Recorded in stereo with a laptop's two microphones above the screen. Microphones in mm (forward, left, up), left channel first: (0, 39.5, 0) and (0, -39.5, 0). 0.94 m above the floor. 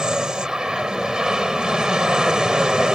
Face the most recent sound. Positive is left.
turn(degrees=-10)  # may be behind; listen again after turning